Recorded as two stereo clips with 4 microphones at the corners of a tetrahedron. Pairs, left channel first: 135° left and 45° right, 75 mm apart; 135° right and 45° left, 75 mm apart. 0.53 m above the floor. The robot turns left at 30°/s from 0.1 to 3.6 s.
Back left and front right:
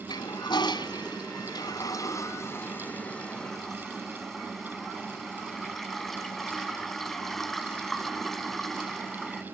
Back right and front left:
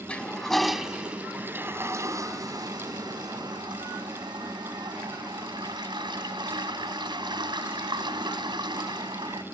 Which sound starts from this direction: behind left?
A toilet flushing, at 0.1 s.